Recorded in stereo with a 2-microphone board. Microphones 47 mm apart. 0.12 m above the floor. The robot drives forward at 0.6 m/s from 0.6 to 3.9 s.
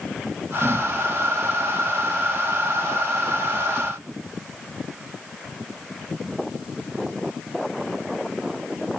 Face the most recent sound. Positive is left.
No sound to turn to.